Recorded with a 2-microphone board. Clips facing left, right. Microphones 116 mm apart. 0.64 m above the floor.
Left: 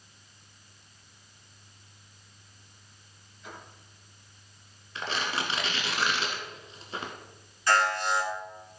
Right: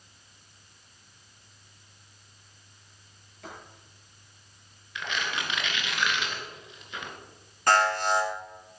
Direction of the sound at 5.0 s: 35° left (ahead or behind).